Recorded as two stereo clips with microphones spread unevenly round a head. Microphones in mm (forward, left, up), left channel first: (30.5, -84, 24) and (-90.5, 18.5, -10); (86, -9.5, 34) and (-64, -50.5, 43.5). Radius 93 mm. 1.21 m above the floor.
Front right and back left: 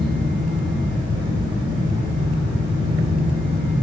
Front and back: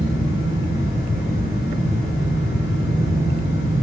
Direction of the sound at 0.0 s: 80° left.